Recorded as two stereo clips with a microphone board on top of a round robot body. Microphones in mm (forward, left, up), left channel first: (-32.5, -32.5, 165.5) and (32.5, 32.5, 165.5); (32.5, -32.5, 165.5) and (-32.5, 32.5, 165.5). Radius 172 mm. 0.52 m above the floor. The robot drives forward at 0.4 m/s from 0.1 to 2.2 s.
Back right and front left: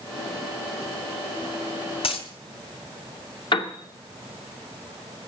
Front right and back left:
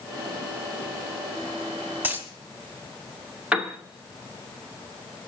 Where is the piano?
145° right, 1.8 m.